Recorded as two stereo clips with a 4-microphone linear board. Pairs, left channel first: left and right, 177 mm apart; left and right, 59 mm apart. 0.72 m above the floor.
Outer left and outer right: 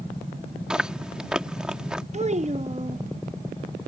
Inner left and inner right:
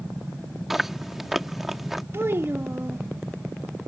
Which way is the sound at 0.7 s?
5° right (ahead or behind).